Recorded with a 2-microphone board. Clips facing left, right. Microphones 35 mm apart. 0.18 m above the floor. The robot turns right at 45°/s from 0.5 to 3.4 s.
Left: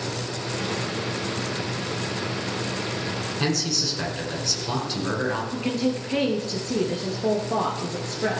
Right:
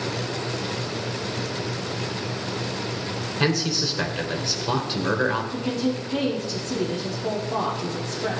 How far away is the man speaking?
About 2 m.